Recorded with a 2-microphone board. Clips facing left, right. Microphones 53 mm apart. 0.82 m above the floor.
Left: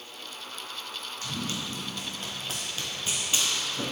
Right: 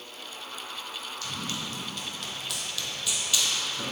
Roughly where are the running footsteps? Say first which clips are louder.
Left 2 dB; left.